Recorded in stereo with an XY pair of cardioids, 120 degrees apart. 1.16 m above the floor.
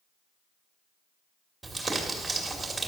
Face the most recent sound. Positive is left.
turn(degrees=-20)